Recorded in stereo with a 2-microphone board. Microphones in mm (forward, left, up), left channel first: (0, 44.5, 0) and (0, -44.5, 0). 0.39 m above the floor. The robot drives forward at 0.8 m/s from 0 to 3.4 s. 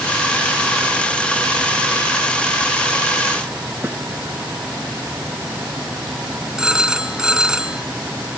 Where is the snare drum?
20° right (ahead or behind).